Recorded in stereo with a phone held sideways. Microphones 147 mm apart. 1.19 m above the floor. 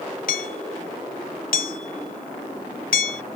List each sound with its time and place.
0.3 s hammering: 70° left (ahead or behind)